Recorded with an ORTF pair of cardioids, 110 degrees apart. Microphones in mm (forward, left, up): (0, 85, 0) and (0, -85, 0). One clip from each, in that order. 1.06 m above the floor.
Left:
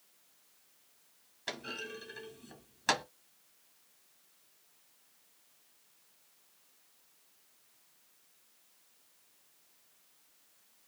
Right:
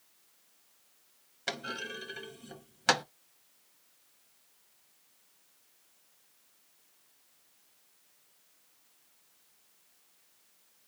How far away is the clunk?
About 1.2 m.